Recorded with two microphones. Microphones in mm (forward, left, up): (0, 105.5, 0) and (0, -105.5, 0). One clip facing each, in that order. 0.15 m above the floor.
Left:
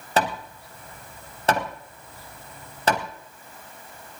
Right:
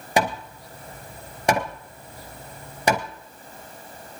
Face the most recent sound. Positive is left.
turn(degrees=-15)  # may be behind; listen again after turning